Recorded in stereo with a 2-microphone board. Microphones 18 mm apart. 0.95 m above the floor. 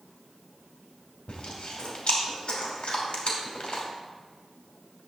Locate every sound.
1.3 s chewing: 60° left (ahead or behind), 3 m